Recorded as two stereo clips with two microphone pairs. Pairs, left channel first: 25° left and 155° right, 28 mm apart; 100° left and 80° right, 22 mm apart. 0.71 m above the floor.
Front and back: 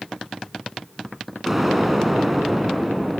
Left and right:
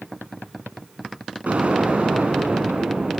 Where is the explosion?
75° right, 3 m.